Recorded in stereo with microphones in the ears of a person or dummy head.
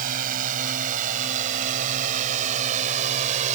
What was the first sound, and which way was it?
A drone, 55° right (ahead or behind).